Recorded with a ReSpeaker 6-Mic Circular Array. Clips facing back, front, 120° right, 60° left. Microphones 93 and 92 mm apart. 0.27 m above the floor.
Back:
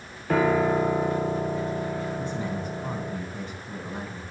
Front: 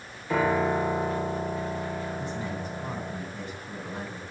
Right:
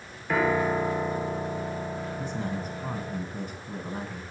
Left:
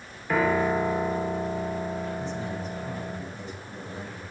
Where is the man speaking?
110° right, 3 m.